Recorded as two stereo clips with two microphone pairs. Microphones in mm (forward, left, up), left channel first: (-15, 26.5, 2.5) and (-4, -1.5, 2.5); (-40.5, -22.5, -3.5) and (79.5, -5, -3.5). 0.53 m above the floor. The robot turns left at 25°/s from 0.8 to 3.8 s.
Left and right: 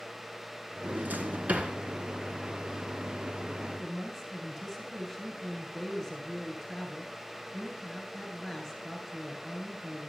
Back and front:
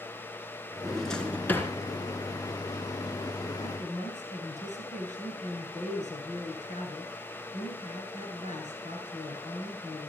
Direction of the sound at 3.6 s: 170° right.